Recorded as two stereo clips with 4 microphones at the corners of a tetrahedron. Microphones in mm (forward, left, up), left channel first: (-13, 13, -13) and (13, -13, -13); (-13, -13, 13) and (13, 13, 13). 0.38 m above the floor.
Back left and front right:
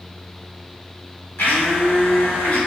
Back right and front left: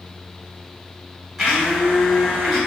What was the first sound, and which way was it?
A blender, 130° left.